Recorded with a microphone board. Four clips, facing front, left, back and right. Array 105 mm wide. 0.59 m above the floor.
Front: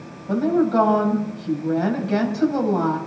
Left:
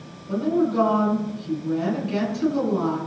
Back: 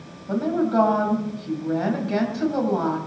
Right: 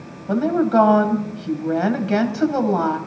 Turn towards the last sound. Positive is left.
turn(degrees=-85)